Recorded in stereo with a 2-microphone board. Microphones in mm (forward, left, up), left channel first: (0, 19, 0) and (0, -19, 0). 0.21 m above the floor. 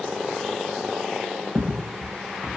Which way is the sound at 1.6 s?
50° right (ahead or behind).